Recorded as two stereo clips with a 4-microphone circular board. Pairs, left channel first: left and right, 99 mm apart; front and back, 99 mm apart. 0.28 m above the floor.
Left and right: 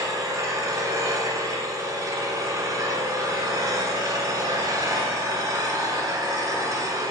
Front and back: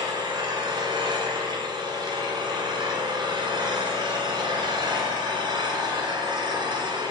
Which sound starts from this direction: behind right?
An engine running, at 0.0 s.